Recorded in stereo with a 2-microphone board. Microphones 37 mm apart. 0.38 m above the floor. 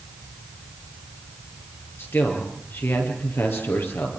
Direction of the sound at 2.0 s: 80° left.